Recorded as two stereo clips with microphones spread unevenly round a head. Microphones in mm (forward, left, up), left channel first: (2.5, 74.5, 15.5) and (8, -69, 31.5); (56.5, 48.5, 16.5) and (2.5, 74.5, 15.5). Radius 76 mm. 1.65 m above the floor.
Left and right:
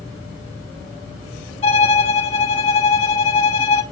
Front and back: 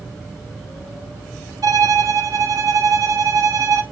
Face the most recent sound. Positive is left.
turn(degrees=150)